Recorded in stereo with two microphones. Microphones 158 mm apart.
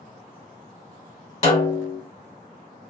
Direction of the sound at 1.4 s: 45° left (ahead or behind).